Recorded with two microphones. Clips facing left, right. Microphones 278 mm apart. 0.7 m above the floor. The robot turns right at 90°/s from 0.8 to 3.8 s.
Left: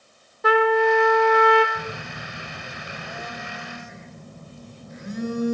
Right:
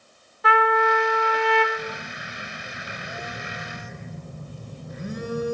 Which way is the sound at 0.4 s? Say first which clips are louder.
Left 5 dB; 50° left.